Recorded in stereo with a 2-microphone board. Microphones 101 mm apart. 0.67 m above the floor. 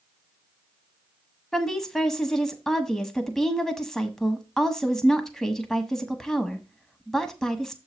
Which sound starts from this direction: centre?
A woman speaking, at 1.5 s.